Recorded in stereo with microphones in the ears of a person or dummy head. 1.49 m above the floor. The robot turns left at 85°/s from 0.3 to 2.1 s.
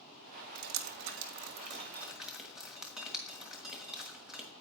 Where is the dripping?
45° right (ahead or behind), 1.4 m; by 4.5 s centre (ahead or behind), 1.4 m.